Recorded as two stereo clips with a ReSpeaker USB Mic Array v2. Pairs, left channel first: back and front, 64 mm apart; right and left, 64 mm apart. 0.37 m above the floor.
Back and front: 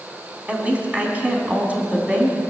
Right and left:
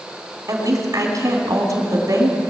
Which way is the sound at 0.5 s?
70° left.